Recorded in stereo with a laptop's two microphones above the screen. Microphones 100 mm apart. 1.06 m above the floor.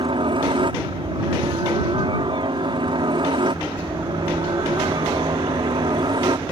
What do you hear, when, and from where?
0.0 s a helicopter: 55° right (ahead or behind); by 6.5 s 50° right (ahead or behind)